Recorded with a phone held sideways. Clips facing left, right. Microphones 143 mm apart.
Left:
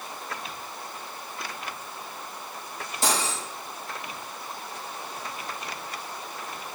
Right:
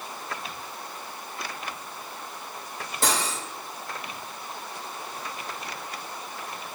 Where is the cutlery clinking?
55° right (ahead or behind), 2.5 m.